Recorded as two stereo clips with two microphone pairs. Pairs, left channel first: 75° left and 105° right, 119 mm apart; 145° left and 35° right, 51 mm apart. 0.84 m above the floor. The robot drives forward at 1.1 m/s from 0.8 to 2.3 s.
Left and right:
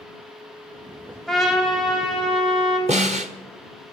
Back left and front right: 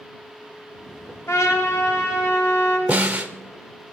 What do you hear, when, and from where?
1.3 s a trumpet: 165° left, 2.5 m; by 2.8 s 170° left, 3.5 m
2.9 s a snare drum: 95° right, 1.1 m